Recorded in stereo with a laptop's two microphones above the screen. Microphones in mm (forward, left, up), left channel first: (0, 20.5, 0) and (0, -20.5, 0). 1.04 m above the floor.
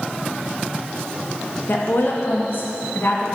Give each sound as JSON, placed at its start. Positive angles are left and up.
{"t": 1.7, "sound": "a woman speaking", "side_deg": 60, "distance_m": 1.6}